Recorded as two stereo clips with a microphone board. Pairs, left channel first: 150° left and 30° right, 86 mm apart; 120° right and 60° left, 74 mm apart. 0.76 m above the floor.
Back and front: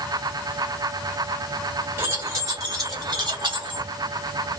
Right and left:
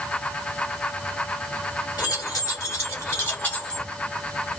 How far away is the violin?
No violin in this recording.